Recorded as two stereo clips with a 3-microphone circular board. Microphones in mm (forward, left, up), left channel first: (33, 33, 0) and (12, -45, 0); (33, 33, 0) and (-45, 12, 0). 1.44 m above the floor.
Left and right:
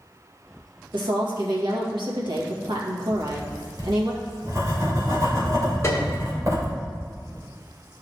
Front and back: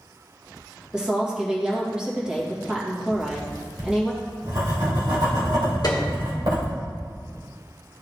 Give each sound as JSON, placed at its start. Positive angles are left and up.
{"t": 0.9, "sound": "a woman speaking", "azimuth_deg": -85, "distance_m": 2.0}
{"t": 3.1, "sound": "writing", "azimuth_deg": -150, "distance_m": 2.5}
{"t": 5.8, "sound": "a piano", "azimuth_deg": 30, "distance_m": 1.4}